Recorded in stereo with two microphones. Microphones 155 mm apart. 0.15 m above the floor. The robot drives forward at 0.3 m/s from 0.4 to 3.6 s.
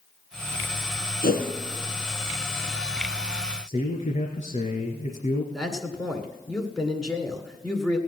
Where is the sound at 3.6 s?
50° left (ahead or behind), 2.5 m.